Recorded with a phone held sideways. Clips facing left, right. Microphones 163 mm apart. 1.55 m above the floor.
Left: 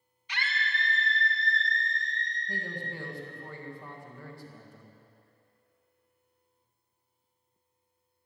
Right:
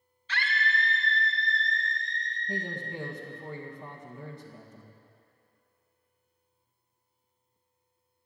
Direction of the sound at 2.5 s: 20° right (ahead or behind).